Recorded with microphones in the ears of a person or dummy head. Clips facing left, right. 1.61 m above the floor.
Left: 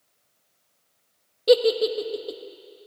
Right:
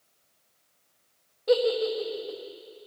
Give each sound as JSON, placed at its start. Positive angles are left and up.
{"t": 1.5, "sound": "a giggle", "side_deg": 45, "distance_m": 1.5}